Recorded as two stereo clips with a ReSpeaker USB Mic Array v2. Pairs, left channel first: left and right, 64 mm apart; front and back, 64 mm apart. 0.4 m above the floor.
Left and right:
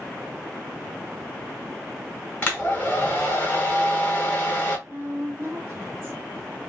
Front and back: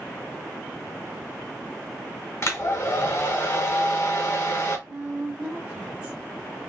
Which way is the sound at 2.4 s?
30° left.